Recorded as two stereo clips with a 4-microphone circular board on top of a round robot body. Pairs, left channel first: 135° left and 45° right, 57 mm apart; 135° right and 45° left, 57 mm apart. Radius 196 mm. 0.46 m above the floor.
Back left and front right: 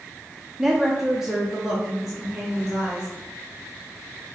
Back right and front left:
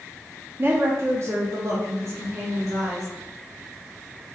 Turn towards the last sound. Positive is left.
turn(degrees=35)